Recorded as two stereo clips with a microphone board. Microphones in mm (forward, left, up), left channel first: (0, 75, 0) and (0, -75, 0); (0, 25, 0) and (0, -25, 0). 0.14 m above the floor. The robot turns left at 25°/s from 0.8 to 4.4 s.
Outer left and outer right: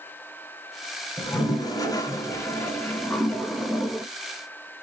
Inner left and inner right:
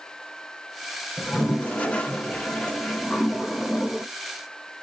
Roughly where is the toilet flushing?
Left.